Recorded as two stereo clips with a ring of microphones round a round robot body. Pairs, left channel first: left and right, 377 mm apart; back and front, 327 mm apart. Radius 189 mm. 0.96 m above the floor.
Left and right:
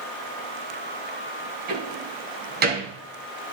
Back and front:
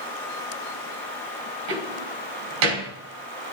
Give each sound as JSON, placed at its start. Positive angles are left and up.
{"t": 1.7, "sound": "a door slam", "azimuth_deg": -20, "distance_m": 5.0}